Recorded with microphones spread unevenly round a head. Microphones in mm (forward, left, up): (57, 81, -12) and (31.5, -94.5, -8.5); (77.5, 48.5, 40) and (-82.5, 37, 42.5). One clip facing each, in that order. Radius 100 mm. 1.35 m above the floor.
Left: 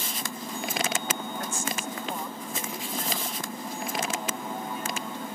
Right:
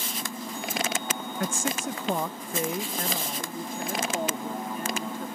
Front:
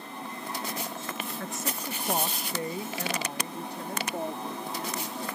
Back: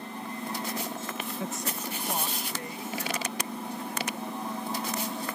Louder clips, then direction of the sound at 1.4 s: Right 3 dB, back 1 dB; 95° right.